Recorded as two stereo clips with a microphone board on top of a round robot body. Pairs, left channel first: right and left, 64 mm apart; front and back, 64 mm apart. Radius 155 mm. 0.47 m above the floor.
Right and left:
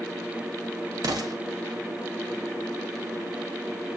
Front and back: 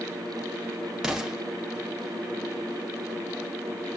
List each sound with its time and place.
1.0 s an explosion: 100° left, 0.9 m